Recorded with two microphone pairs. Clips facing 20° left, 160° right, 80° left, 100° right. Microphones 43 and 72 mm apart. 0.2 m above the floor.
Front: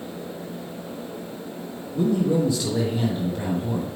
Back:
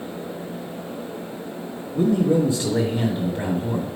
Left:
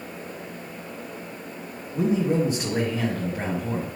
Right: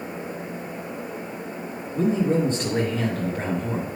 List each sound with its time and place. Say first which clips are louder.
1.9 s a man speaking: back 2 dB, right 1 dB; 155° left, 1.4 m